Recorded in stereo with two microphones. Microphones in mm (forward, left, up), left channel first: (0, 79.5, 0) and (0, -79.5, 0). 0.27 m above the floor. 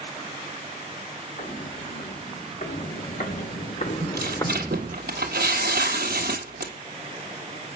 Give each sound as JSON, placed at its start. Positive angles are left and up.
{"t": 1.4, "sound": "footsteps", "side_deg": 60, "distance_m": 5.5}
{"t": 4.0, "sound": "tearing paper", "side_deg": -85, "distance_m": 1.4}